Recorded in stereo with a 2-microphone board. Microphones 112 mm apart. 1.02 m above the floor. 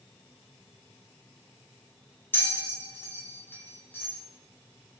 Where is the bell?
20° left (ahead or behind), 0.8 m.